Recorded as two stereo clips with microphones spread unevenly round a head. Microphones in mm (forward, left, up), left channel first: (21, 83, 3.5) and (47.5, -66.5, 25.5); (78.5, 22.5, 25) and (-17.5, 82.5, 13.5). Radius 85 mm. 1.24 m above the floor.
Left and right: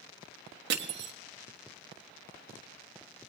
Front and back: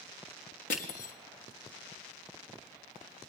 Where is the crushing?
80° right, 1.2 m.